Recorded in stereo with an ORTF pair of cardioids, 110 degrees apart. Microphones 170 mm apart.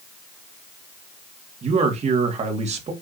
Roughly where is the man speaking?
Ahead right.